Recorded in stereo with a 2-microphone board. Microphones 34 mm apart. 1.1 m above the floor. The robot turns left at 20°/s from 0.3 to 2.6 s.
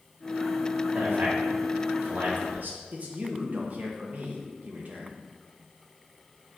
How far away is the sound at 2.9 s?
About 1.3 m.